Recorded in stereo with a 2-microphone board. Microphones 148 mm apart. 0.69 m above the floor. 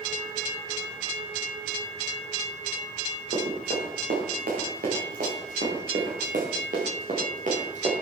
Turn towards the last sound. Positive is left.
turn(degrees=-55)  # may be behind; listen again after turning